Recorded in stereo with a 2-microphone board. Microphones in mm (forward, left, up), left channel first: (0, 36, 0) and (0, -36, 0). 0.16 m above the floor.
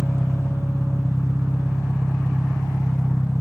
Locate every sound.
0.0 s an engine running: 35° left (ahead or behind), 1.3 m